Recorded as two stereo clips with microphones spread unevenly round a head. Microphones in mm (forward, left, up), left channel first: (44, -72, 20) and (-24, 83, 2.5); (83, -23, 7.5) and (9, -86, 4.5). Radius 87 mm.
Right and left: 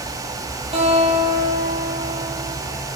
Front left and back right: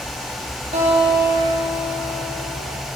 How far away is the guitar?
About 7.5 m.